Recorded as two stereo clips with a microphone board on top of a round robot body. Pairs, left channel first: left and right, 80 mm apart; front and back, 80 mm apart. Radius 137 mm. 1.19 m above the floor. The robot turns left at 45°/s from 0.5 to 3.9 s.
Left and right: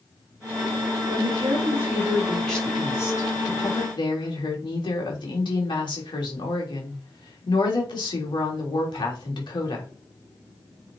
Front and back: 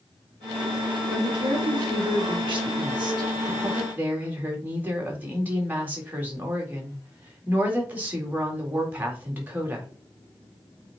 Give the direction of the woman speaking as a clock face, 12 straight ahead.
4 o'clock.